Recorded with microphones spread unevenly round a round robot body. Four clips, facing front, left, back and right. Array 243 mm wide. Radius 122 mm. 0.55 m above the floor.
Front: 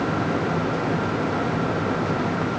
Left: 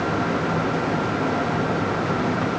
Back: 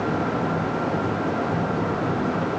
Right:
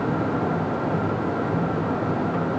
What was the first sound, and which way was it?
Only background noise.